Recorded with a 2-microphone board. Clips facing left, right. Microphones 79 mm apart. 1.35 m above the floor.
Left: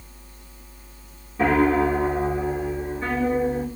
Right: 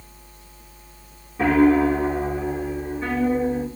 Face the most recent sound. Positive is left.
turn(degrees=0)  # may be behind; listen again after turning